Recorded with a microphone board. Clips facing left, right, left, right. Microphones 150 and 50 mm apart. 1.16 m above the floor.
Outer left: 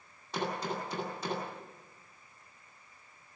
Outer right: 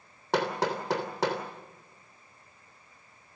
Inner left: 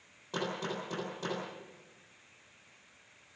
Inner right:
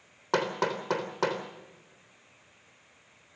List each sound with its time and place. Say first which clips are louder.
0.3 s hammering: outer right 7 dB, inner right 8 dB; 85° right, 3.5 m